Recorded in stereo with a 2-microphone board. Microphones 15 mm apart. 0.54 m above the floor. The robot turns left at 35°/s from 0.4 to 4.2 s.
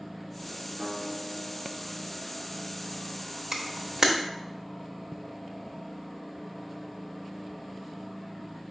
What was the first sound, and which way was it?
A guitar, 125° right.